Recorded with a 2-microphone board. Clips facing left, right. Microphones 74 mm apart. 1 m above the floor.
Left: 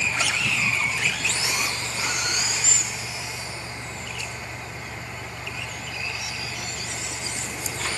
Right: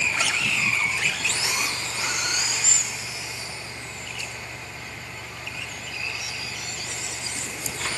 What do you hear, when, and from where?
Only background noise.